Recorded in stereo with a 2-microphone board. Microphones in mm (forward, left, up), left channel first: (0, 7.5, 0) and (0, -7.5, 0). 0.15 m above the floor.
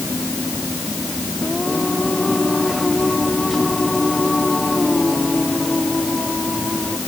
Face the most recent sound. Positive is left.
turn(degrees=15)  # may be behind; listen again after turning